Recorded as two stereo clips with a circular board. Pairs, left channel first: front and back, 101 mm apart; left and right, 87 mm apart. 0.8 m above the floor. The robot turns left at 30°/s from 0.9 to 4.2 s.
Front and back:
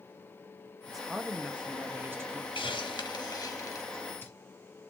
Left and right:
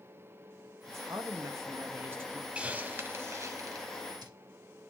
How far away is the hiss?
About 0.7 m.